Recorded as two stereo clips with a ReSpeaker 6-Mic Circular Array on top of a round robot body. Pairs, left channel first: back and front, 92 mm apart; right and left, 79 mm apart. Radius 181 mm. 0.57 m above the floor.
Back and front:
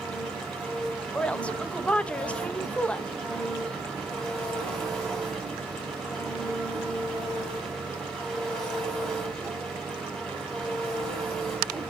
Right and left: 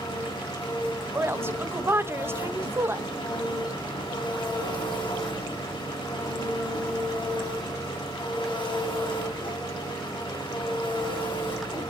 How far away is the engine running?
About 5.5 m.